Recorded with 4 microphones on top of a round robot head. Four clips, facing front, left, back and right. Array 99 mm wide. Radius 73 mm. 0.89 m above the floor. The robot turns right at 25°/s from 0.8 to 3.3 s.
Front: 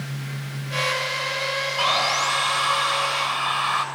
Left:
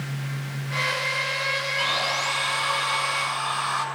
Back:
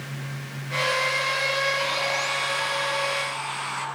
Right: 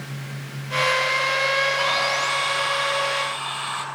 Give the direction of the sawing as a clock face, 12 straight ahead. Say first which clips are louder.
Right 4 dB, front 4 dB; 1 o'clock.